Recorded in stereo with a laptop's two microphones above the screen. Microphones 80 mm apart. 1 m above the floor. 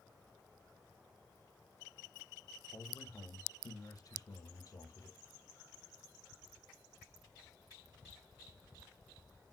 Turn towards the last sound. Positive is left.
turn(degrees=50)  # may be behind; listen again after turning